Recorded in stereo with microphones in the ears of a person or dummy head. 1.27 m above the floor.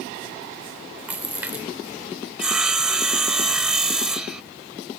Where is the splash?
15° right (ahead or behind).